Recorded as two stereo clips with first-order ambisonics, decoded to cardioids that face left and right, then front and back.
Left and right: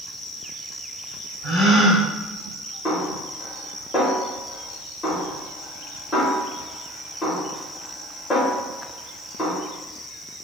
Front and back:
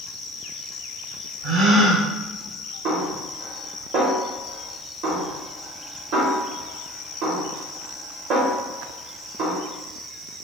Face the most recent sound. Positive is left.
turn(degrees=160)